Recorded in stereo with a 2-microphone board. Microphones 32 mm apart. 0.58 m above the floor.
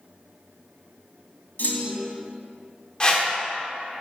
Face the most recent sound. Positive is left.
turn(degrees=25)  # may be behind; listen again after turning